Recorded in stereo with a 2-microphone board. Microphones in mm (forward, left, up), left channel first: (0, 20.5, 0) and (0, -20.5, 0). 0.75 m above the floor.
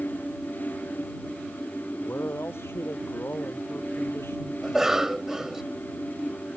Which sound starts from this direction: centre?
A cough, at 4.6 s.